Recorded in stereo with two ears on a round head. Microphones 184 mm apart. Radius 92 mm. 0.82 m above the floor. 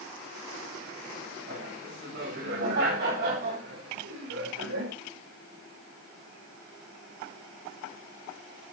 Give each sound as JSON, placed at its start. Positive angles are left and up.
{"t": 1.5, "sound": "laughter", "side_deg": -55, "distance_m": 5.0}